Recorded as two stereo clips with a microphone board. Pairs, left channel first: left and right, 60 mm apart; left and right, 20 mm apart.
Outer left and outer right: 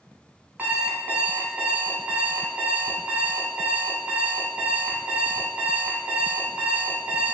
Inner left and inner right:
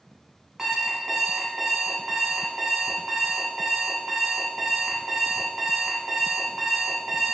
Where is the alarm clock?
25° right (ahead or behind), 0.7 m.